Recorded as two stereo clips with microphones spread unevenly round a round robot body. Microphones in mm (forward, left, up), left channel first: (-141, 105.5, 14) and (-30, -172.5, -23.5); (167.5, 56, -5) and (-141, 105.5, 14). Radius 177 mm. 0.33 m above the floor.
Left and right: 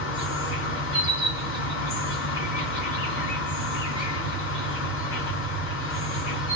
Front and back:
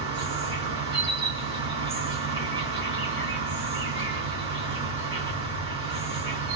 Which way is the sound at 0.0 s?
135° left.